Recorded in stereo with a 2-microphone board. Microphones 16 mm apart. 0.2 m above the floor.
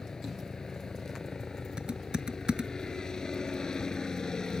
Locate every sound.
0.0 s a helicopter: 35° left (ahead or behind); by 4.6 s 40° left (ahead or behind)
1.8 s typing on a keyboard: 65° right (ahead or behind)